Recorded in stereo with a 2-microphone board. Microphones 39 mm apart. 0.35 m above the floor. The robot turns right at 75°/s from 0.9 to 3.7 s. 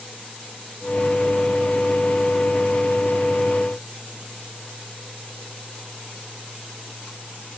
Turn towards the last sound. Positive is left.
No sound to turn to.